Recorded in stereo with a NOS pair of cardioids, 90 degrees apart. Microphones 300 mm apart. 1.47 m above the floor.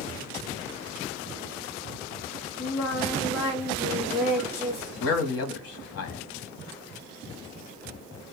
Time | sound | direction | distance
2.6 | singing | 70° left | 1.1 m
5.0 | a man speaking | 55° left | 0.8 m